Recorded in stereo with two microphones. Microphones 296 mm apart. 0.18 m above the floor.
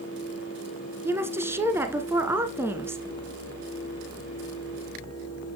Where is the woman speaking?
5° right (ahead or behind), 1.8 m.